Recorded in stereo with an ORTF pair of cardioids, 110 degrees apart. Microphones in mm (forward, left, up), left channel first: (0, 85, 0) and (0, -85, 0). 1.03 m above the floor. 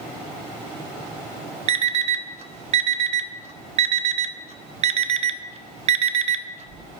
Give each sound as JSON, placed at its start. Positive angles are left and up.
{"t": 1.7, "sound": "an alarm clock", "azimuth_deg": -45, "distance_m": 0.6}